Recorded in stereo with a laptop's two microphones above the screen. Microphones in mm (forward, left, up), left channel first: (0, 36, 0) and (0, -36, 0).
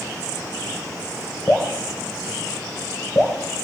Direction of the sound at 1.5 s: 25° left (ahead or behind).